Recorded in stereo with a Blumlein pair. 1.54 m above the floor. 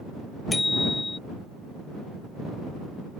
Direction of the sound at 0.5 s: 10° left.